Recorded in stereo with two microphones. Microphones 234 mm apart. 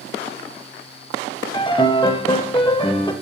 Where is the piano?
20° left (ahead or behind), 0.5 m.